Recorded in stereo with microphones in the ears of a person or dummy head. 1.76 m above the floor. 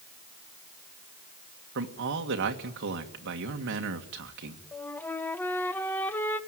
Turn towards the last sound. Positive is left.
turn(degrees=10)  # may be behind; listen again after turning